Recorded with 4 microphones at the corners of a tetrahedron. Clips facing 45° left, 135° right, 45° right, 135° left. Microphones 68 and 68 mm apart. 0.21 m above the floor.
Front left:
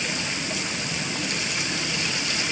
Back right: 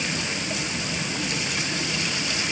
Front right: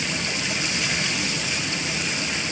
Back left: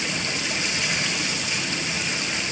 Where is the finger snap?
I don't hear a finger snap.